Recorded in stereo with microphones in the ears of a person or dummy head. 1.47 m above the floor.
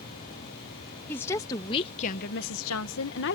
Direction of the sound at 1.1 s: 10° left (ahead or behind).